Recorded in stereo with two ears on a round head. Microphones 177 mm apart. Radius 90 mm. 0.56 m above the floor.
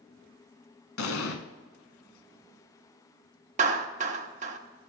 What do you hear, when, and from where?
1.0 s an explosion: 80° left, 1.3 m
3.6 s a clap: 35° right (ahead or behind), 1.1 m